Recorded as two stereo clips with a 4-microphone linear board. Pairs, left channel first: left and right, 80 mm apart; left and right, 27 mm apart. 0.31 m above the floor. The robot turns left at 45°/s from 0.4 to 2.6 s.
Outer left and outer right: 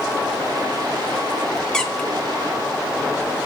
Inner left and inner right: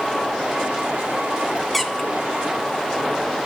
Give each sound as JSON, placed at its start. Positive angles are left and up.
{"t": 1.7, "sound": "a squeak", "side_deg": 10, "distance_m": 0.8}